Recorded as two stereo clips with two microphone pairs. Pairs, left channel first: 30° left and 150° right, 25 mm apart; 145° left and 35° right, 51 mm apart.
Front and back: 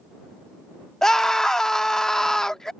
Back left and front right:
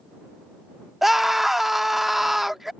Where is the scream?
50° left.